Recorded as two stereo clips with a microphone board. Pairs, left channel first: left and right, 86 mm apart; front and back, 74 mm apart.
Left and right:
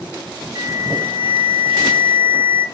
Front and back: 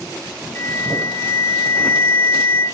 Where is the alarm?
55° right, 4 m.